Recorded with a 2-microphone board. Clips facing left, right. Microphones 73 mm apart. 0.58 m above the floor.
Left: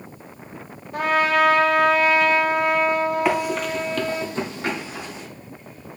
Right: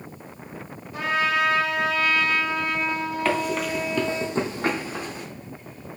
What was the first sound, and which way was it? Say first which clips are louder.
A trumpet: left 4 dB; 55° left (ahead or behind).